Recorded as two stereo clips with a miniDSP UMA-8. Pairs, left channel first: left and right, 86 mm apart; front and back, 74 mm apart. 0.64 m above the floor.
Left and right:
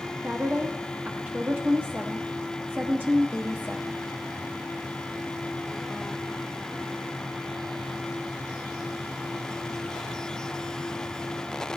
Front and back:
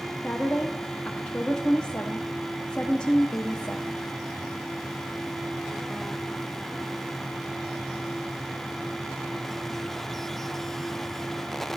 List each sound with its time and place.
0.2 s a woman speaking: 55° right, 0.7 m